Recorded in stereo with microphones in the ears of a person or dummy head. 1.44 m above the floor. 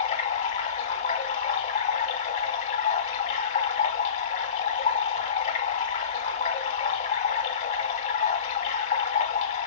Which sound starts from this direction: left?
Running water, at 0.0 s.